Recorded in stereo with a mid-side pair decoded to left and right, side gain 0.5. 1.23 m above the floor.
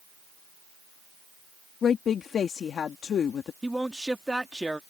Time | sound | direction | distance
1.8 | a woman speaking | 50° left | ?
3.6 | a man speaking | 5° right | ?